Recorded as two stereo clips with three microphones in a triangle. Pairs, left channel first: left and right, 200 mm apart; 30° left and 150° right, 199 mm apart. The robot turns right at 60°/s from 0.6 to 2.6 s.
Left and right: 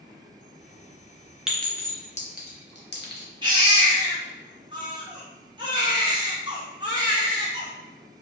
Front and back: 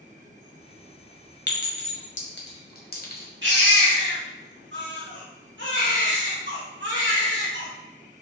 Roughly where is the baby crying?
Behind right.